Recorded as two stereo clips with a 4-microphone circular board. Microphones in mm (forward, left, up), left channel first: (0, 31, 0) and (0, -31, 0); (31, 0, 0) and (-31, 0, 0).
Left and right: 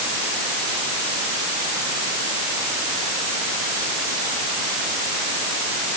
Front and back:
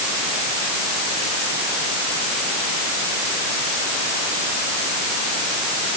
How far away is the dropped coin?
I don't hear a dropped coin.